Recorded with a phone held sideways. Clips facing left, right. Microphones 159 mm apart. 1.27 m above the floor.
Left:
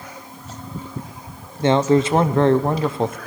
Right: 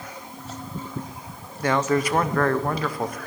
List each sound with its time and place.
1.6 s a man speaking: 25° left (ahead or behind), 0.7 m